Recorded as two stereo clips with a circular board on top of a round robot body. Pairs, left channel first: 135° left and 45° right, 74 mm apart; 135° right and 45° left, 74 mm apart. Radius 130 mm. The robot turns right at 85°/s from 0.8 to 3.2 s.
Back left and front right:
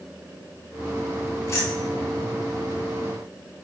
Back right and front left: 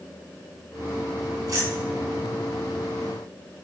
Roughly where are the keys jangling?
Left.